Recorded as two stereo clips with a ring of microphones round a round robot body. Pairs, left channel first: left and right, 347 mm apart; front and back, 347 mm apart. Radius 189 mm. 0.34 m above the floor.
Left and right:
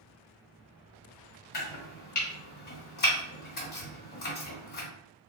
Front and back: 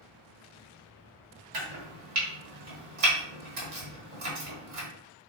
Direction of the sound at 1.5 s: 150° left.